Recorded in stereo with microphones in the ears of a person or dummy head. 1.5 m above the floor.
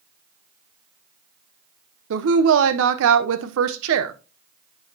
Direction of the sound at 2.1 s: 75° right (ahead or behind).